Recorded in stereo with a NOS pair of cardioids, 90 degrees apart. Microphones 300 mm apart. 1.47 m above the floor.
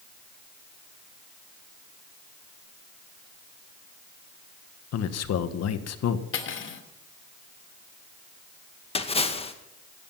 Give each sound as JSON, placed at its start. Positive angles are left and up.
{"t": 4.9, "sound": "a man speaking", "azimuth_deg": 60, "distance_m": 1.7}
{"t": 6.3, "sound": "cutlery clinking", "azimuth_deg": 45, "distance_m": 2.5}
{"t": 8.9, "sound": "a splash", "azimuth_deg": 20, "distance_m": 2.0}